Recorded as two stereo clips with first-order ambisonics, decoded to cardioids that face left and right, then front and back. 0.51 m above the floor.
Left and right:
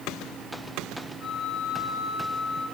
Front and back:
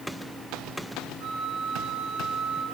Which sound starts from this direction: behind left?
A flute, at 1.2 s.